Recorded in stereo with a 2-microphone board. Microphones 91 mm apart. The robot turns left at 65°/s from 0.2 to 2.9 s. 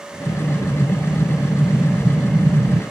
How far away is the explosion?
About 2.0 m.